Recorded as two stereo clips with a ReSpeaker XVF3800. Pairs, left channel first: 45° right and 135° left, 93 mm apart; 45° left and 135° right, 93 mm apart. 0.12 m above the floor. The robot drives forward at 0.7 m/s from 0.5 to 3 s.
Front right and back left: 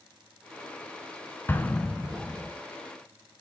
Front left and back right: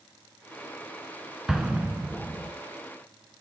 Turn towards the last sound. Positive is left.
turn(degrees=-165)